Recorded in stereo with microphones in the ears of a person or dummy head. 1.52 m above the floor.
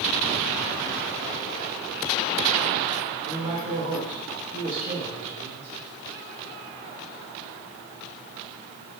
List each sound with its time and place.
3.2 s a man speaking: 45° right (ahead or behind), 2.5 m